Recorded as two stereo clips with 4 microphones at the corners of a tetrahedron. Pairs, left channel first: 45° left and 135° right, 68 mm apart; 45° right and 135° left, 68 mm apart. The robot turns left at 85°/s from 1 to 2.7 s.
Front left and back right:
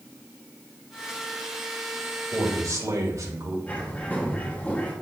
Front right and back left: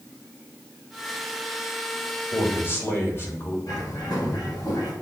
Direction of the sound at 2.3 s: 60° right.